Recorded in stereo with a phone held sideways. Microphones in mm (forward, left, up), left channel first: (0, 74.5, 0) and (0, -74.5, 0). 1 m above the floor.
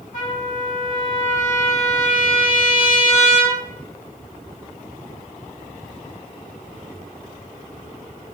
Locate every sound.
0.1 s a trumpet: 60° left (ahead or behind), 1.5 m